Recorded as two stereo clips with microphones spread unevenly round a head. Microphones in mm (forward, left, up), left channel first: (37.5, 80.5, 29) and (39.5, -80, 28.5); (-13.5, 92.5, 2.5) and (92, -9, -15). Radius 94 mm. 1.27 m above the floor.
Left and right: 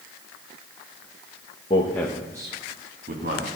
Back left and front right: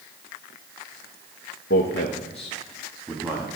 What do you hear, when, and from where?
1.7 s a man speaking: 155° left, 1.0 m; by 3.5 s 125° right, 1.8 m